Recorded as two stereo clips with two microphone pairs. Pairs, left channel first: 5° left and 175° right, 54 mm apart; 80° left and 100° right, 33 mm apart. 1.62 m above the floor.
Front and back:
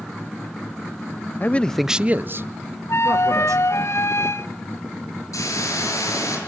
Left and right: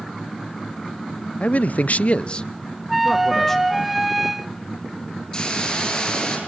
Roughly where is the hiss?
Ahead.